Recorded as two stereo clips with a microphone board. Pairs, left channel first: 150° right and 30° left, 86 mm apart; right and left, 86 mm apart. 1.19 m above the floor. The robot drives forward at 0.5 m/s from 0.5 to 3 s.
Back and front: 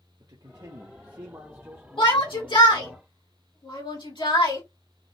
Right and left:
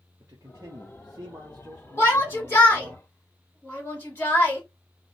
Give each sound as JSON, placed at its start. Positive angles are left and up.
{"t": 0.2, "sound": "a man speaking", "azimuth_deg": 40, "distance_m": 1.1}
{"t": 2.0, "sound": "a shout", "azimuth_deg": -150, "distance_m": 2.5}